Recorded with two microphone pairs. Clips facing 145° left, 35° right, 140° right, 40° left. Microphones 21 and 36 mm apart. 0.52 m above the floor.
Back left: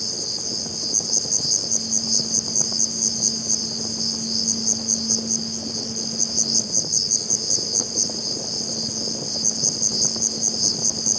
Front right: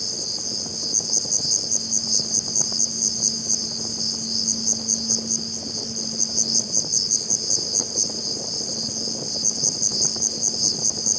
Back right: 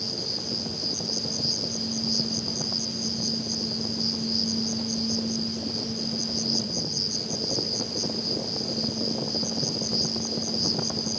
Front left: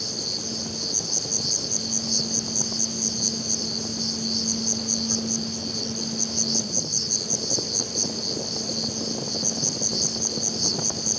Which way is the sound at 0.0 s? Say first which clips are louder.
Back left 1 dB, front left 1 dB; 60° left.